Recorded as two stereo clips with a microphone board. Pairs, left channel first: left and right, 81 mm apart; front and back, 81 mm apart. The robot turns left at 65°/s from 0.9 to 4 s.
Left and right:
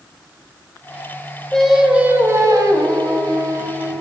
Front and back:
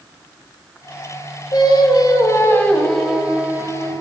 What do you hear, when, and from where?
1.5 s singing: 10° left, 1.4 m; by 3.9 s 145° right, 1.4 m